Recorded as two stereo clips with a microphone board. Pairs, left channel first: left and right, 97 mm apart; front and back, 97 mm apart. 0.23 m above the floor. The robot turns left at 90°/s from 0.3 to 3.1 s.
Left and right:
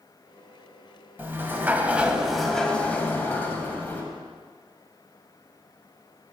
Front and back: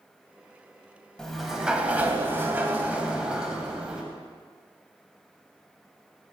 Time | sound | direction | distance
1.2 | a sliding door | 70° right | 0.6 m